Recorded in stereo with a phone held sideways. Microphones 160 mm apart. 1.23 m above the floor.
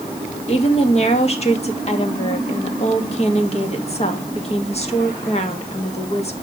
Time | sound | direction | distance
0.5 | a woman speaking | 40° left (ahead or behind) | 2.5 m